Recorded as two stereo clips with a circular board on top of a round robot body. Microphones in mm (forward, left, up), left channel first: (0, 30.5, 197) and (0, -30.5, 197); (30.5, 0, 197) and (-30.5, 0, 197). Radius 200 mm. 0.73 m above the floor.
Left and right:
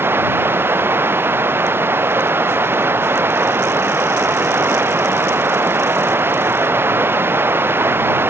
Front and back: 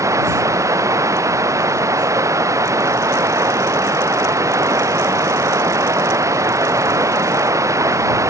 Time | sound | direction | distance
0.0 | running water | 145° right | ?